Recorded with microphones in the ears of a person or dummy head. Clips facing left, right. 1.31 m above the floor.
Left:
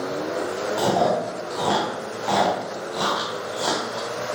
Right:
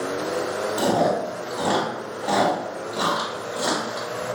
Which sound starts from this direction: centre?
Chewing, at 0.8 s.